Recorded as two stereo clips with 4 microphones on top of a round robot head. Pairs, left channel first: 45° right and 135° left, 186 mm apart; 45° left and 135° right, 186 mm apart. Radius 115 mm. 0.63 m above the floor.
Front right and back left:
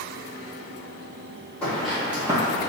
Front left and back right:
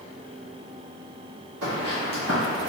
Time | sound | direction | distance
1.6 | footsteps | 130° right | 1.4 m